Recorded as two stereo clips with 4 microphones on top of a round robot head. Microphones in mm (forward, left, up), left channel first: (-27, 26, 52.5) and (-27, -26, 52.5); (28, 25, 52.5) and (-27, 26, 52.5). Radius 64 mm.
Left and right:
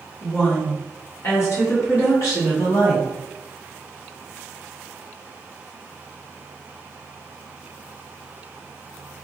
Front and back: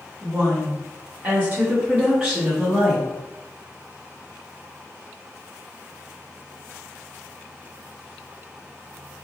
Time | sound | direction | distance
0.2 | a woman speaking | 145° left | 1.6 m